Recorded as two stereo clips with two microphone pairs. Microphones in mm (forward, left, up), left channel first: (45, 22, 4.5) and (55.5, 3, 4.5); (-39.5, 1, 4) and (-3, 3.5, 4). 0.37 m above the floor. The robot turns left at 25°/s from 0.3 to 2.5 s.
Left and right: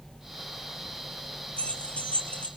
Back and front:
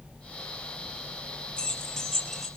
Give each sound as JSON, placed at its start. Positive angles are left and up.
{"t": 1.6, "sound": "keys jangling", "azimuth_deg": 120, "distance_m": 5.0}